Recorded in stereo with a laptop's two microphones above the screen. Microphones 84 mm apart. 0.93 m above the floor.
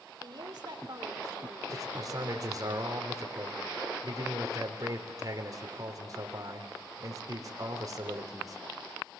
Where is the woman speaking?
60° right (ahead or behind), 3.5 m; by 2.7 s 40° right (ahead or behind), 3 m.